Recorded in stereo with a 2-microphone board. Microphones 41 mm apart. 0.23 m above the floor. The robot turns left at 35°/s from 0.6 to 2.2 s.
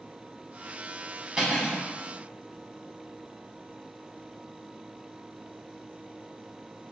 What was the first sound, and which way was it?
Cutlery clinking, 15° right (ahead or behind).